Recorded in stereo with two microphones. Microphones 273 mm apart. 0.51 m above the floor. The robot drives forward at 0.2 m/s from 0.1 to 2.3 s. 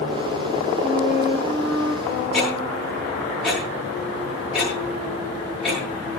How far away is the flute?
About 9.5 m.